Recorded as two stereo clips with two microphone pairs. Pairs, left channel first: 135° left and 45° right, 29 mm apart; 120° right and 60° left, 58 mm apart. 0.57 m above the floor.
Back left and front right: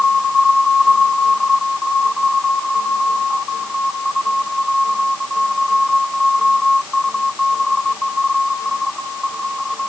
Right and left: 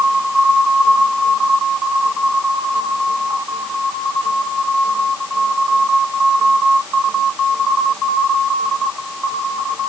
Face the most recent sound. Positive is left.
No sound to turn to.